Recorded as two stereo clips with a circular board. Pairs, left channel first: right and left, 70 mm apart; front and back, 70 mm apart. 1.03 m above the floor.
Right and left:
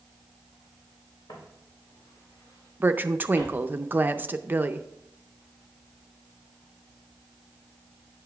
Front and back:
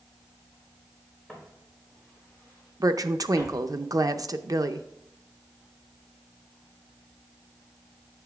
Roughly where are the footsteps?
Right.